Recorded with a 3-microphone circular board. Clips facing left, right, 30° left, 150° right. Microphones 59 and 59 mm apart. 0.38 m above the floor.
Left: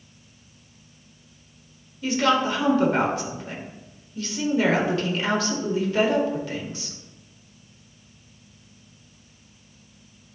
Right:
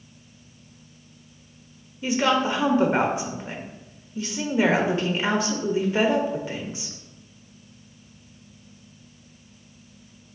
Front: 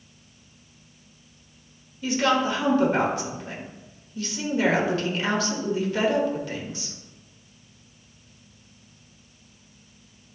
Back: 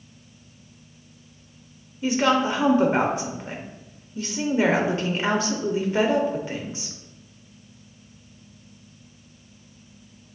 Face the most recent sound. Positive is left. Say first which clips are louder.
# even, back 2 dB
turn(degrees=-130)